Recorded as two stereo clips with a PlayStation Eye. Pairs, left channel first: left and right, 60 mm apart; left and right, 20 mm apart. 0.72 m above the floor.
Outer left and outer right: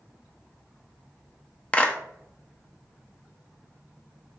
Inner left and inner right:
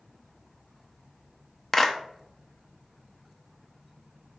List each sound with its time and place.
1.7 s a clap: 20° left (ahead or behind), 0.6 m